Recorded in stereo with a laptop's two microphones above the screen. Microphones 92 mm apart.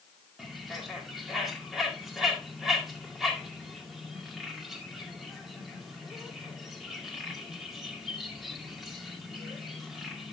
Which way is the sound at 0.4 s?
Centre (ahead or behind).